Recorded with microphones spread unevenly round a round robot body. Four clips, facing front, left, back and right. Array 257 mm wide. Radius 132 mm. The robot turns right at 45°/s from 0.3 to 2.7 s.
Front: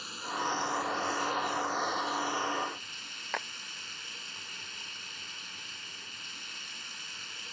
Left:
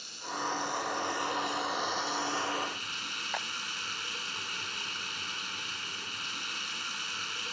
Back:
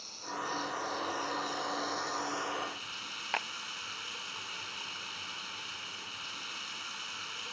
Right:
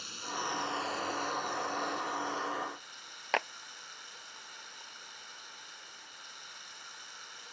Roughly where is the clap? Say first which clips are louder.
Right 6 dB, even; right.